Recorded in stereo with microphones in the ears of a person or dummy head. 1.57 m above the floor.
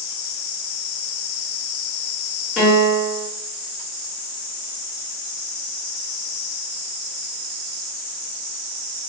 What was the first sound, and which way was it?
A piano, centre (ahead or behind).